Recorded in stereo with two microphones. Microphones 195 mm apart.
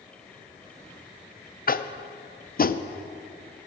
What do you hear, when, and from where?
1.7 s tapping: 50° left (ahead or behind), 0.5 m